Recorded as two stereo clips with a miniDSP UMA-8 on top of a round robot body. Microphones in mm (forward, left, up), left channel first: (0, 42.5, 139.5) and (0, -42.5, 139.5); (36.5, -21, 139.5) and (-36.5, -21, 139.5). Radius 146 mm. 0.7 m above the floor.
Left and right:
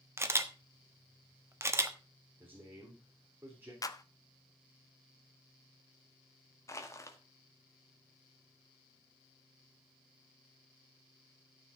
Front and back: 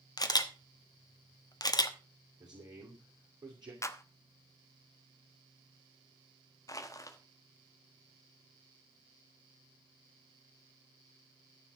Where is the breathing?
I don't hear breathing.